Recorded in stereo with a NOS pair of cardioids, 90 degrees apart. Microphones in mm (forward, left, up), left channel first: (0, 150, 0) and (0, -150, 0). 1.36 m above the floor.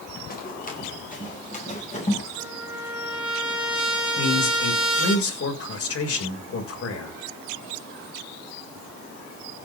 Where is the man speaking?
50° left, 6.5 m.